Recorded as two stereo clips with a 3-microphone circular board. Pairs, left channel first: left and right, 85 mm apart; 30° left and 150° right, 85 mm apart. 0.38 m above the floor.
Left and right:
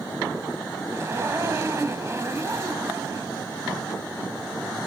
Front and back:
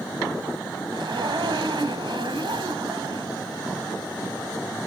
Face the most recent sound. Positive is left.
turn(degrees=-140)